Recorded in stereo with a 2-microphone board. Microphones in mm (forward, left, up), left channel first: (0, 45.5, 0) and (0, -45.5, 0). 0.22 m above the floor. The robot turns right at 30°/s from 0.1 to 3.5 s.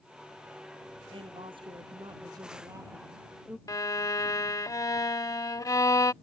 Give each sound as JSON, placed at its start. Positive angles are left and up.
{"t": 1.1, "sound": "a woman speaking", "azimuth_deg": -85}
{"t": 3.7, "sound": "a violin", "side_deg": 40}